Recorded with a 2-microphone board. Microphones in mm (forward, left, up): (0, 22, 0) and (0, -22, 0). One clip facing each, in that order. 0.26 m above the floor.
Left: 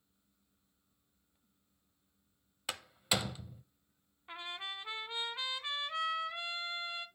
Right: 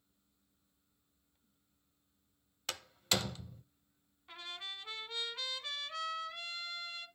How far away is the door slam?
About 0.7 m.